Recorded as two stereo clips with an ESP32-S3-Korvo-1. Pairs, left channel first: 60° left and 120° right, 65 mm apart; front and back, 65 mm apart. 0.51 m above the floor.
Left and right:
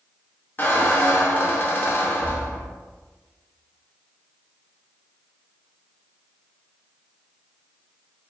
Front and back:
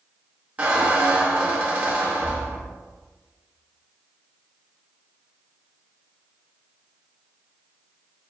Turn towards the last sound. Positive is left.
turn(degrees=120)